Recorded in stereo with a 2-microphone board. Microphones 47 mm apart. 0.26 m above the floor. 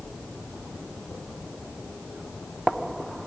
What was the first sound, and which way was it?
Only background noise.